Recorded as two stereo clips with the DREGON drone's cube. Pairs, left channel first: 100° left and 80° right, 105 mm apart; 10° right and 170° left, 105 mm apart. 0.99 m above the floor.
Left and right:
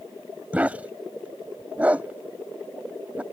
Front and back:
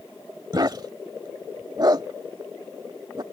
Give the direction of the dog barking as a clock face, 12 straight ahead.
5 o'clock.